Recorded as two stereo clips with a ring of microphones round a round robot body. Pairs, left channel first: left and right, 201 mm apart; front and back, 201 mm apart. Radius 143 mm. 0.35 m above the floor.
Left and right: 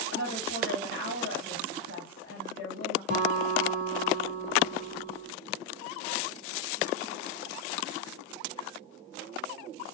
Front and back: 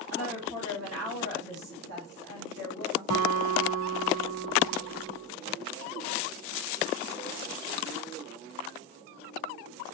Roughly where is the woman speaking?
Behind right.